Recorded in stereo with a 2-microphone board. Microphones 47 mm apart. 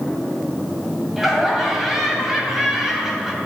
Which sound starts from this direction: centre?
Laughter, at 1.2 s.